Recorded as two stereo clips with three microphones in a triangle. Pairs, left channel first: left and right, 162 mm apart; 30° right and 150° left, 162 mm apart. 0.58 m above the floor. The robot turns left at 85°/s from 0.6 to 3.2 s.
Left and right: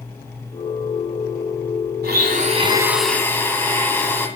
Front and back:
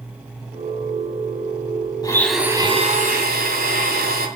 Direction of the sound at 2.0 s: 95° right.